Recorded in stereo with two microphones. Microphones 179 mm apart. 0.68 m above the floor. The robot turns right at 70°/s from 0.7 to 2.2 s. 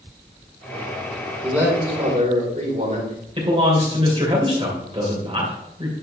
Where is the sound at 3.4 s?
30° right (ahead or behind), 2.5 m.